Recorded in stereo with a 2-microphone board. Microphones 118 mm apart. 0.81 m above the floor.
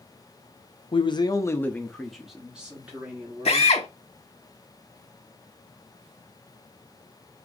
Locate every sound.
0.9 s a man speaking: 45° left (ahead or behind), 0.6 m; by 3.7 s 20° right (ahead or behind), 1.7 m
3.5 s a drill: 60° left (ahead or behind), 1.0 m